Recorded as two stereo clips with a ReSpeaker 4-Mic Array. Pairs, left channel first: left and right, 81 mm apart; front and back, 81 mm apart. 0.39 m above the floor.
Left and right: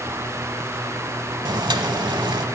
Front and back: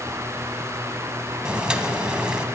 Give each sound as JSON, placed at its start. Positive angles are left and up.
{"t": 1.4, "sound": "boiling", "azimuth_deg": -100, "distance_m": 0.9}